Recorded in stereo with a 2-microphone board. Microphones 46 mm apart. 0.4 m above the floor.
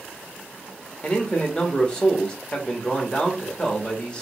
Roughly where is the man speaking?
Left.